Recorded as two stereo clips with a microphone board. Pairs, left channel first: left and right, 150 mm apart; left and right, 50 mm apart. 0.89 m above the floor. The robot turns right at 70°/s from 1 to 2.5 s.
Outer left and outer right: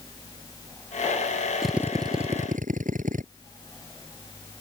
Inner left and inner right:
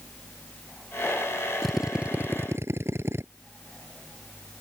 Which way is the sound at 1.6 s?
Straight behind.